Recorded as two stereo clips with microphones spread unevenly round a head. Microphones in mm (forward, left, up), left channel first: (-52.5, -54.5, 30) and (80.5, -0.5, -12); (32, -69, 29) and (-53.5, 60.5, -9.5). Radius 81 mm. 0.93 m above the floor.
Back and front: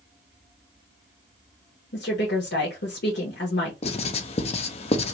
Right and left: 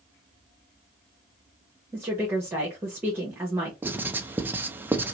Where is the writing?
160° left, 0.5 m.